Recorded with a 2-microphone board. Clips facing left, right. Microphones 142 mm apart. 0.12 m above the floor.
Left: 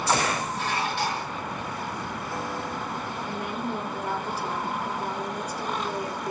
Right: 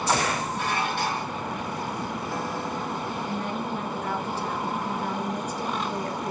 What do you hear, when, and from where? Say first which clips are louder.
0.6 s dishes clattering: right 1 dB; 50° right (ahead or behind), 3 m
3.2 s a woman speaking: left 1 dB; 10° left (ahead or behind), 1.8 m